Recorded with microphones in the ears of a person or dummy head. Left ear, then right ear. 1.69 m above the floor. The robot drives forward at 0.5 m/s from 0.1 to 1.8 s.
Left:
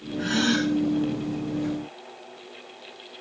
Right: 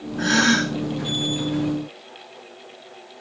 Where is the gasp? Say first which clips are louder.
Right 6 dB; 65° right (ahead or behind), 1.0 m; by 0.7 s 55° right (ahead or behind), 1.1 m.